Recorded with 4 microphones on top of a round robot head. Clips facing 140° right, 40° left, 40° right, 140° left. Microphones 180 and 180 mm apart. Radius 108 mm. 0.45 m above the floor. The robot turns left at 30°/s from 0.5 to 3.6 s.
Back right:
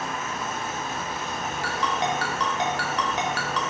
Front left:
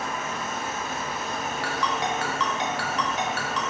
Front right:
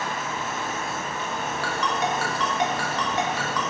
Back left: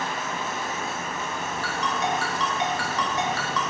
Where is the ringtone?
65° right, 0.6 m; by 3.6 s 120° right, 0.6 m.